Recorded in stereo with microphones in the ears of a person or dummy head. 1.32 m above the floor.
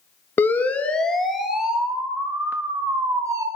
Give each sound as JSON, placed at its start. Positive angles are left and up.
{"t": 0.4, "sound": "a siren", "side_deg": 10, "distance_m": 2.5}